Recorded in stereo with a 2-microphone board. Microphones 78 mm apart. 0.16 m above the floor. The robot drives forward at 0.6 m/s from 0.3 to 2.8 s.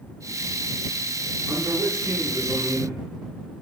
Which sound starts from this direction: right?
A man speaking, at 1.5 s.